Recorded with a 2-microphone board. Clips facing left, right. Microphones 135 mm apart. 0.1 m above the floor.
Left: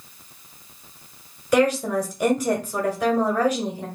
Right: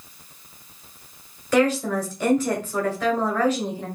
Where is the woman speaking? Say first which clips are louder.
Left 1 dB; 15° left (ahead or behind), 1.5 m.